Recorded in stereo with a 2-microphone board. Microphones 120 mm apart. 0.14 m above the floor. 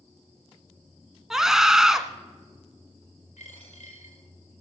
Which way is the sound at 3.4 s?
85° left.